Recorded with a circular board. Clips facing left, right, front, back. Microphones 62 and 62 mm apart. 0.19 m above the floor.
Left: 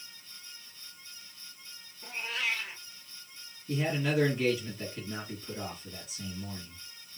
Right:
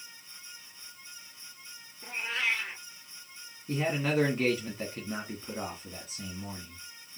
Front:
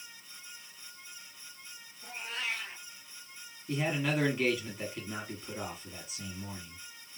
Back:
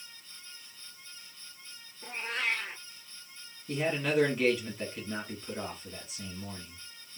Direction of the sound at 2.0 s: 150° right.